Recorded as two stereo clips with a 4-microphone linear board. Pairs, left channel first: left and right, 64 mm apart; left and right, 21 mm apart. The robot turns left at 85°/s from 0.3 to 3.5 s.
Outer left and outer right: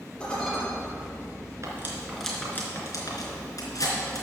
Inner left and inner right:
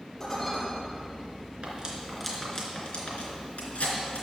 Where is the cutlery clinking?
50° right (ahead or behind), 3 m; by 4.2 s 70° left (ahead or behind), 3 m.